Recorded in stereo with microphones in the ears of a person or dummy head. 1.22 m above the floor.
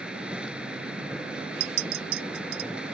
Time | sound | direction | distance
0.0 | a machine running | 5° right (ahead or behind) | ?
1.6 | a clink | 85° right | ?